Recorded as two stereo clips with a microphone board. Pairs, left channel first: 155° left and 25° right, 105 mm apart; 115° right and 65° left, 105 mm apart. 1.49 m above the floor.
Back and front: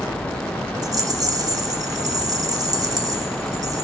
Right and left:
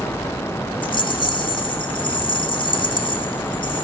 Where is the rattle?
75° right, 0.8 m.